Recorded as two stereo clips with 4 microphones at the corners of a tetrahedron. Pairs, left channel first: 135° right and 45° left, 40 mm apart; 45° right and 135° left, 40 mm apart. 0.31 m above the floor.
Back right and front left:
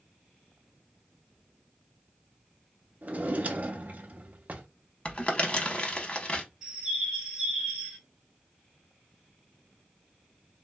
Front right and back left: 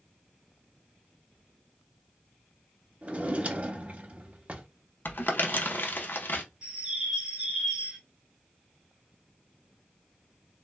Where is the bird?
105° left, 0.9 m.